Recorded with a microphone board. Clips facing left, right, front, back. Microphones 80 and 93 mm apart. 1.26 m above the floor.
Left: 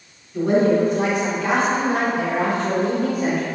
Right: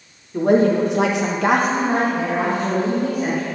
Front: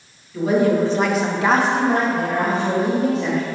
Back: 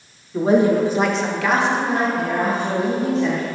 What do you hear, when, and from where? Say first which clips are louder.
0.3 s a woman speaking: right 1 dB, back 2 dB; 125° right, 1.6 m; by 3.4 s 5° right, 3 m